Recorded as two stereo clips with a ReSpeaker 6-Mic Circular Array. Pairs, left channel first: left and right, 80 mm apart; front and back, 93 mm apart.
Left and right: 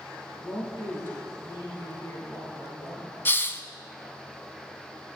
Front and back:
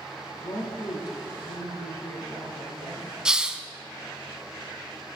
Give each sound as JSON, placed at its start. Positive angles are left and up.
{"t": 0.3, "sound": "a woman speaking", "azimuth_deg": 35, "distance_m": 3.0}
{"t": 3.2, "sound": "a hiss", "azimuth_deg": 105, "distance_m": 0.6}